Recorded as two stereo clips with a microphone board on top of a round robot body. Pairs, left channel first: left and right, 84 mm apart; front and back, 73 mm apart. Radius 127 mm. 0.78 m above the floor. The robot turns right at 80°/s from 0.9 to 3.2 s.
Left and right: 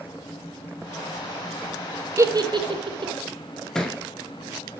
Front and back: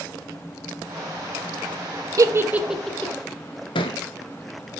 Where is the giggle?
140° right, 1.1 m; by 3.1 s 65° right, 1.1 m.